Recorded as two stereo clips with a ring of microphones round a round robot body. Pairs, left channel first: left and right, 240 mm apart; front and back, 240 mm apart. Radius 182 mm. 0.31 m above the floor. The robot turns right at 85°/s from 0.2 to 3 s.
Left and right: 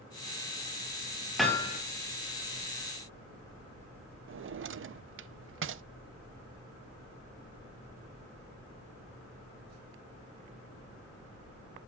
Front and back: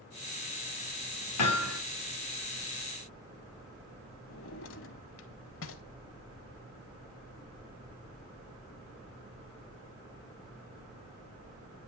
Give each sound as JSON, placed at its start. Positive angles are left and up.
{"t": 1.4, "sound": "hammering", "azimuth_deg": 0, "distance_m": 3.5}
{"t": 4.3, "sound": "a drawer", "azimuth_deg": -45, "distance_m": 0.6}